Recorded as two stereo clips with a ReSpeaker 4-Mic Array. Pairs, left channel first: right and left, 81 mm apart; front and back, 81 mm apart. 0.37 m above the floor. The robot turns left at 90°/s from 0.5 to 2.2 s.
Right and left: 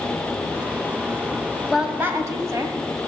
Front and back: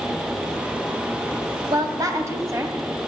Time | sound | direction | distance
1.7 | a woman speaking | straight behind | 2 m